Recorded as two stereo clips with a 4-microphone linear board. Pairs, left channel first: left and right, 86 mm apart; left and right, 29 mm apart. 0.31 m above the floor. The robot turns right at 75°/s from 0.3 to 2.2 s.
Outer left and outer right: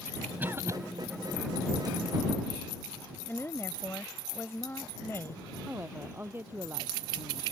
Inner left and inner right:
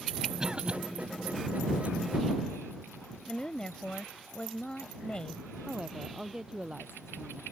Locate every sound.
0.4 s a cough: 20° right (ahead or behind); by 0.8 s 40° right (ahead or behind)
3.3 s a woman speaking: 30° left (ahead or behind)
5.7 s a woman speaking: 25° right (ahead or behind)